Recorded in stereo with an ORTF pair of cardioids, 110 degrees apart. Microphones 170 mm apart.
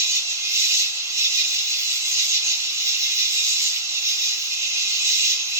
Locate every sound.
0.0 s an insect: 20° right, 1.3 m